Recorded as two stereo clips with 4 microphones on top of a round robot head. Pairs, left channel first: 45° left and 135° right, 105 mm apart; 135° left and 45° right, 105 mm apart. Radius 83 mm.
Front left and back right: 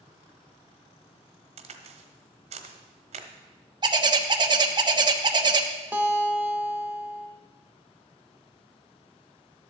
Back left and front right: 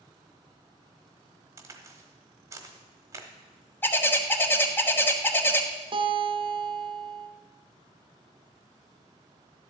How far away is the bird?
About 1.1 m.